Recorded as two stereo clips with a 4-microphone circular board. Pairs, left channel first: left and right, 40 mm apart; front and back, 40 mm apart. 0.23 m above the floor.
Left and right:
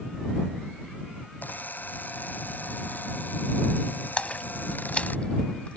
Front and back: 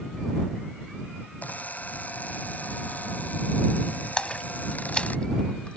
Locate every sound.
1.4 s a camera shutter: 50° left
4.2 s a splash: 50° left